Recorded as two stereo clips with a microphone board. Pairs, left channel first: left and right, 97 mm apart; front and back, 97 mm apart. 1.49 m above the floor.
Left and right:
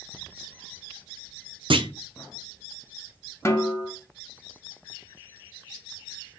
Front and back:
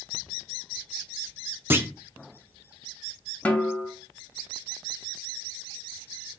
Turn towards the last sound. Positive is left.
turn(degrees=60)